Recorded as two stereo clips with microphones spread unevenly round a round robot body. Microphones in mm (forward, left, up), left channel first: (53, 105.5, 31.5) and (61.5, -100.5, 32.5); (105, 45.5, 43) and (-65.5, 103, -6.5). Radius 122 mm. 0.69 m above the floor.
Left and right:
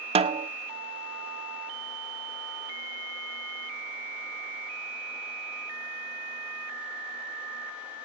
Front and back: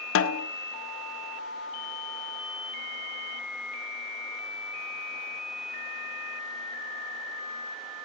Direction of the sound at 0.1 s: 30° right.